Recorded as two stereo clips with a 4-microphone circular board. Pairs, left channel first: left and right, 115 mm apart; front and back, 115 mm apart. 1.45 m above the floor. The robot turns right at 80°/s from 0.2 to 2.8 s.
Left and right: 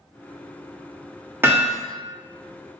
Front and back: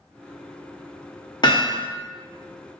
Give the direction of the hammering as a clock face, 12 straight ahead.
1 o'clock.